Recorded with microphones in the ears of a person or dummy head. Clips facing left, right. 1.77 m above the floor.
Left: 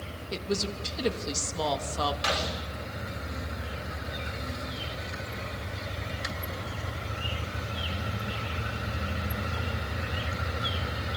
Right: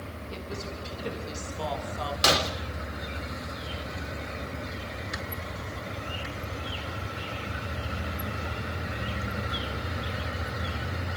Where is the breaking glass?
50° right (ahead or behind), 3.5 m.